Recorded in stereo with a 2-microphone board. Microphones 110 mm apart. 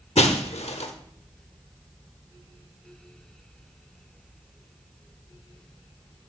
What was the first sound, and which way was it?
Breaking glass, 75° left (ahead or behind).